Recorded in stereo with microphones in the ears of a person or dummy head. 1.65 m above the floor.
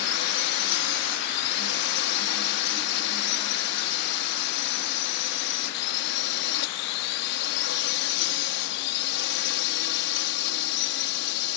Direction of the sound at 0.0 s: 65° left (ahead or behind).